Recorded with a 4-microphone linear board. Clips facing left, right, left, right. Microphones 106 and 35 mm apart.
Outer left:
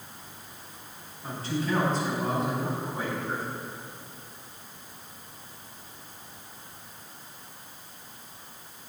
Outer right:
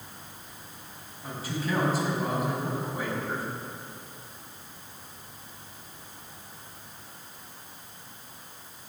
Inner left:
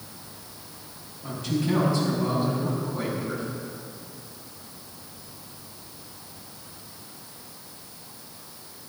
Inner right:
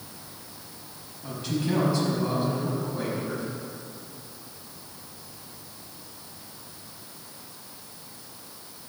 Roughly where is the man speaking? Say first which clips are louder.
Outer left 3 dB, inner left 2 dB; centre.